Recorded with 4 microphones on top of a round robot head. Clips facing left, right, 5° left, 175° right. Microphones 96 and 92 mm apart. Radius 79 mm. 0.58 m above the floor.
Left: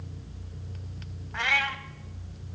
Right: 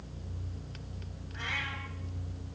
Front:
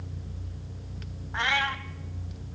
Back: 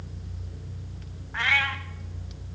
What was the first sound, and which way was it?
A cat meowing, 70° left.